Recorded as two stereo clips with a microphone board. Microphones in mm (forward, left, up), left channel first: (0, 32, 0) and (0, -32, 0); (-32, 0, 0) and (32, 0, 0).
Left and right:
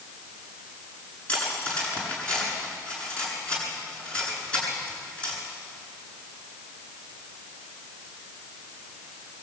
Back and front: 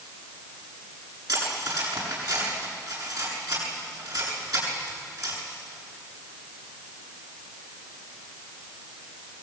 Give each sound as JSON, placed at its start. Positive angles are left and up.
{"t": 1.3, "sound": "cutlery clinking", "azimuth_deg": 20, "distance_m": 7.5}